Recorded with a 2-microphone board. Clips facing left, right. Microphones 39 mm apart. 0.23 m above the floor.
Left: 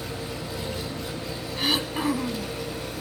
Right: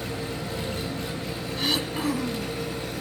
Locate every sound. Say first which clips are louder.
0.0 s an engine running: right 2 dB; 65° right (ahead or behind), 4.5 m
1.6 s throat clearing: left 2 dB; 5° left (ahead or behind), 1.9 m